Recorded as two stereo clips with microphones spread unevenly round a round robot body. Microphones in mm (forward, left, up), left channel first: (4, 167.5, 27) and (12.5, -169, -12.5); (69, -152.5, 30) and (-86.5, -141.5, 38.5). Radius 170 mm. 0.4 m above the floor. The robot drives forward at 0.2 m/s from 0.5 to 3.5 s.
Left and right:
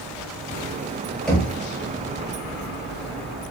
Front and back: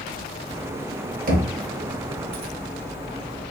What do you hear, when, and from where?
1.3 s knocking: 175° right, 0.6 m